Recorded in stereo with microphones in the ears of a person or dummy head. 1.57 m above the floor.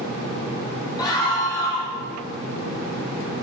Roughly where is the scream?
Centre.